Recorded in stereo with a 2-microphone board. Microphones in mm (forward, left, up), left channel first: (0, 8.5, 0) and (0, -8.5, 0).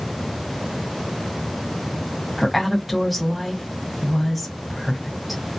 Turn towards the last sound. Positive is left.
turn(degrees=0)  # may be behind; listen again after turning